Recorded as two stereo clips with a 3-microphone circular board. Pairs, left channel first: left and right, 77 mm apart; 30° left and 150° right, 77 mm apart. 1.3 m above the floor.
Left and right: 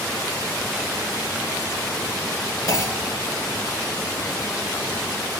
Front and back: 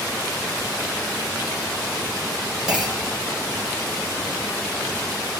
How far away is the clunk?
About 3 m.